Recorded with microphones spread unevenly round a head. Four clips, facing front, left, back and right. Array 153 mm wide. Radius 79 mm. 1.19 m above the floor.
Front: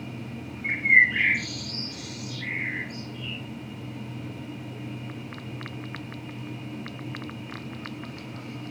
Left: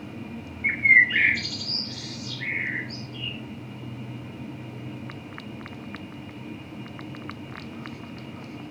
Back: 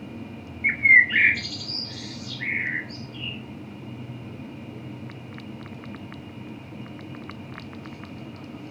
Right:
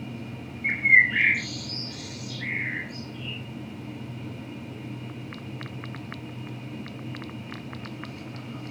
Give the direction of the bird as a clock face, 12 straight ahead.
6 o'clock.